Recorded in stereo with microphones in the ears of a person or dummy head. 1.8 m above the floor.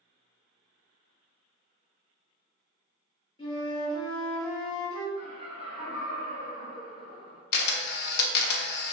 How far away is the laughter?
About 1.4 m.